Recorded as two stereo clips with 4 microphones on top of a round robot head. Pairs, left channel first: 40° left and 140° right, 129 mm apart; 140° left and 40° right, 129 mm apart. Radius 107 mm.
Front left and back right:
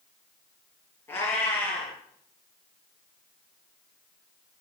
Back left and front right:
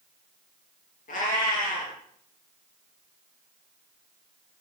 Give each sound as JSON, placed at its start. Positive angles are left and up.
{"t": 1.1, "sound": "a cat meowing", "azimuth_deg": 115, "distance_m": 5.5}